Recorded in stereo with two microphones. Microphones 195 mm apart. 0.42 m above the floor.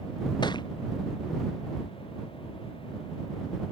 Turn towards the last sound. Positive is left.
turn(degrees=20)  # may be behind; listen again after turning